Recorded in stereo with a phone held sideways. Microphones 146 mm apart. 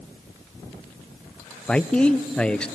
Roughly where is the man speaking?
Centre.